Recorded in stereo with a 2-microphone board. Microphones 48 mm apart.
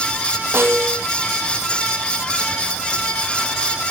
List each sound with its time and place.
0.5 s a snare drum: 50° right (ahead or behind), 1.6 m